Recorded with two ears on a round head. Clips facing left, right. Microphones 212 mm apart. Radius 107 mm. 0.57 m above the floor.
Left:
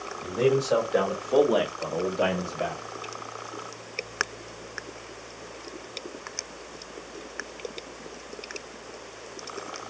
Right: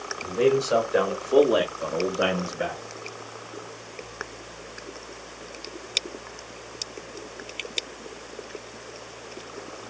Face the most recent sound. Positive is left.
turn(degrees=-15)  # may be behind; listen again after turning